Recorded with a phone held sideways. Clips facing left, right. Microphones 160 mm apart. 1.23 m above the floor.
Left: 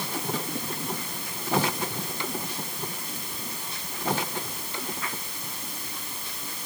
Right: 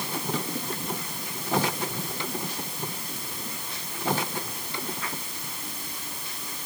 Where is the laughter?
No laughter in this recording.